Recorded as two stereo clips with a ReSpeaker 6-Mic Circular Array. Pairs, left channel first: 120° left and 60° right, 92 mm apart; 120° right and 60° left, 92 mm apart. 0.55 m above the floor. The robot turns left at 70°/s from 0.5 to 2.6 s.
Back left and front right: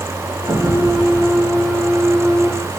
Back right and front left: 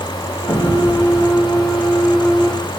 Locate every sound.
0.5 s an explosion: 55° right, 2.5 m; by 1.3 s 110° right, 2.5 m